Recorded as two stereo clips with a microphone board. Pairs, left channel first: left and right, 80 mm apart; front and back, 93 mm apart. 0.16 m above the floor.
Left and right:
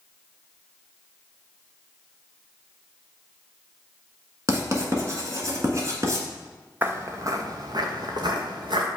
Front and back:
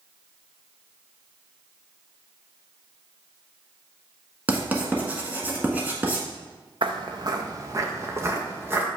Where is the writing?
115° right, 1.4 m.